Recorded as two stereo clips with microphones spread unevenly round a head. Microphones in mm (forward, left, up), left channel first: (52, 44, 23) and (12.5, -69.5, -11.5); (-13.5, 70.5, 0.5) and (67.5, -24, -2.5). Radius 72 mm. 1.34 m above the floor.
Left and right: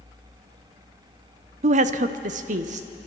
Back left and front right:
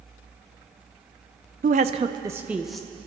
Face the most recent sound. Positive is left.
turn(degrees=-145)